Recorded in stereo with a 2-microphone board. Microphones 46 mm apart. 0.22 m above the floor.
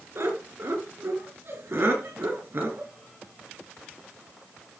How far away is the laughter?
About 3.5 m.